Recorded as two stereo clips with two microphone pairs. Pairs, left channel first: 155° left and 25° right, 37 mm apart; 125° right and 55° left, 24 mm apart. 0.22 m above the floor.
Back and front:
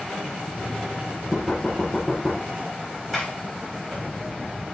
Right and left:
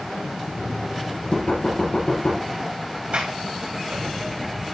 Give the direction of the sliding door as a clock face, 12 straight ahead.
9 o'clock.